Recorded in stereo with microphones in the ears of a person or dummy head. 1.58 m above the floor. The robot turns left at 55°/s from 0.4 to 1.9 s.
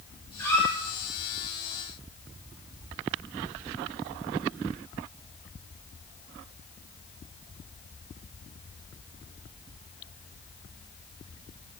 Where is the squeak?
15° left (ahead or behind), 1.6 m; by 0.7 s centre (ahead or behind), 1.6 m.